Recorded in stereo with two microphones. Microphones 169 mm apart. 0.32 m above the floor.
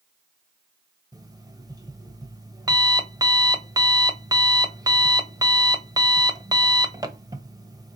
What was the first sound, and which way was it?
An alarm clock, 20° right (ahead or behind).